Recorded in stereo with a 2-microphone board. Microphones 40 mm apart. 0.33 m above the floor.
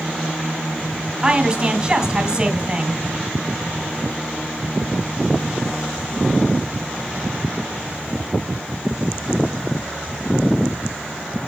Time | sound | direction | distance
1.2 | a woman speaking | 20° right (ahead or behind) | 2 m